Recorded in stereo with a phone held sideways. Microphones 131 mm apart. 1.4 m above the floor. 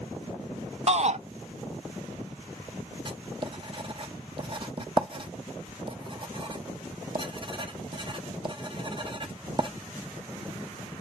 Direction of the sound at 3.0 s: 40° right (ahead or behind).